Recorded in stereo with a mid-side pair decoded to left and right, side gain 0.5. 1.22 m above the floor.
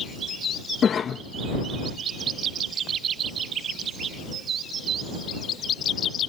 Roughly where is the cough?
Ahead left.